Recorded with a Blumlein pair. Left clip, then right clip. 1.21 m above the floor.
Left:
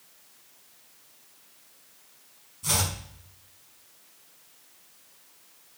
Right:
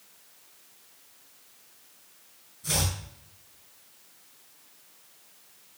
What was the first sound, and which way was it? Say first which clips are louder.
Chopping: left 2 dB; 35° left.